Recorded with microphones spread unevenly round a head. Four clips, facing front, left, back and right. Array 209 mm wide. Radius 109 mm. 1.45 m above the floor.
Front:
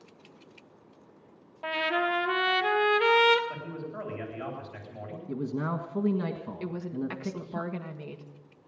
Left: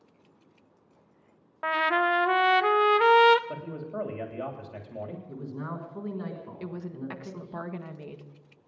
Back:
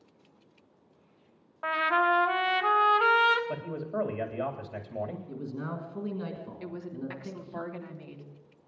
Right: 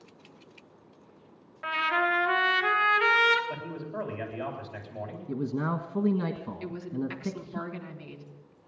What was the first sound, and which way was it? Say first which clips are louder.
A trumpet: left 3 dB, back 3 dB; 65° left.